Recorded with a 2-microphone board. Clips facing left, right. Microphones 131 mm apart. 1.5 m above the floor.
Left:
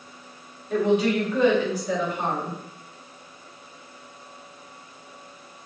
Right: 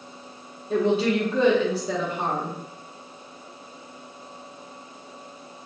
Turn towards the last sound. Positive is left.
turn(degrees=-30)  # may be behind; listen again after turning